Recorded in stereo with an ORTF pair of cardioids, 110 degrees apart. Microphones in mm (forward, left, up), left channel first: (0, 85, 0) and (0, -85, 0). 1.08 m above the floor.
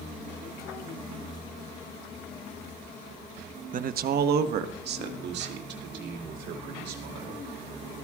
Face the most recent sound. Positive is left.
turn(degrees=-80)